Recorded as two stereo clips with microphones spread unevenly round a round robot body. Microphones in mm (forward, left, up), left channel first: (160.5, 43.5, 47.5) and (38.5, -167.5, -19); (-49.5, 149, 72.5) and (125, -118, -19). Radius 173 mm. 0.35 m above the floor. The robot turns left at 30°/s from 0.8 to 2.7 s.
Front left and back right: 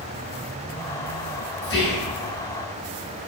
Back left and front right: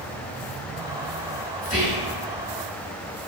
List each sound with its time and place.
1.6 s whispering: 50° left, 0.8 m; by 2.1 s 35° left, 0.8 m